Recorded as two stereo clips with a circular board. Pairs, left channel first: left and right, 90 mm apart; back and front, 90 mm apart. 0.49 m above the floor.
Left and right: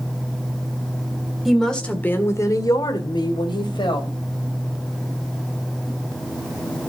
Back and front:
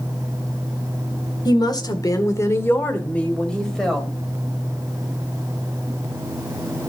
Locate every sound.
1.4 s a woman speaking: straight behind, 1.7 m; by 4.1 s 90° left, 3 m